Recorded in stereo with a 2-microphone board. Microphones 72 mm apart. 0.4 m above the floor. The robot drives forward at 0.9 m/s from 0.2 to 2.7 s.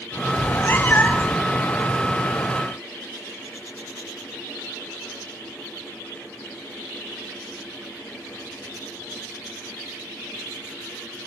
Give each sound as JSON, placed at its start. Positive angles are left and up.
{"t": 0.4, "sound": "a cat meowing", "side_deg": 45, "distance_m": 0.7}